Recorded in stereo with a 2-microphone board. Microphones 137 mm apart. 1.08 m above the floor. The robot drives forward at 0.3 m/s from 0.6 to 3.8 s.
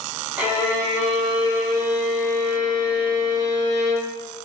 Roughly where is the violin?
Centre.